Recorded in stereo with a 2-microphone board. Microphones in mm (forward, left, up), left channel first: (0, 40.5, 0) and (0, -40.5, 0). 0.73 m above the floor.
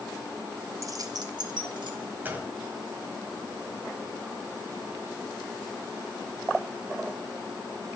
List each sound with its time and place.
0.8 s keys jangling: 40° right (ahead or behind), 0.7 m; by 2.0 s 65° right (ahead or behind), 1.7 m
2.2 s a gunshot: 25° right (ahead or behind), 1.6 m